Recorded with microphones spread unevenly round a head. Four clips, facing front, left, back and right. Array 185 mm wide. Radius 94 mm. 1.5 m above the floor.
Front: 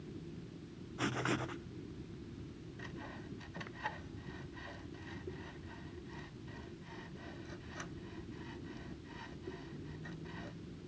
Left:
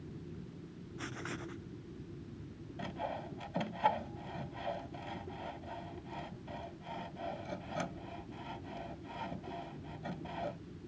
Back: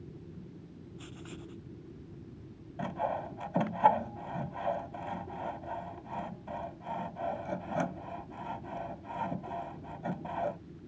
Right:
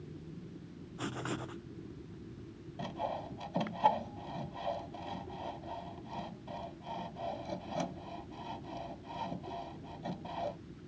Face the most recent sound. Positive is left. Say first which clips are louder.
# right 2 dB, back 17 dB
turn(degrees=-170)